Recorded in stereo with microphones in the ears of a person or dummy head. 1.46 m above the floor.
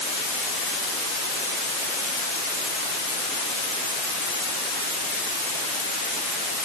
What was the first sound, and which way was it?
Only background noise.